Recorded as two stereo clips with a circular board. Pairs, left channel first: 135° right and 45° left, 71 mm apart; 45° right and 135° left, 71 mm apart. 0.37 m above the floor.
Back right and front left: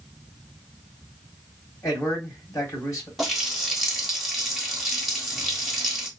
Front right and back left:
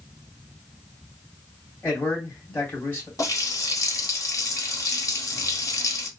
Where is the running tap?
45° right, 1.0 m.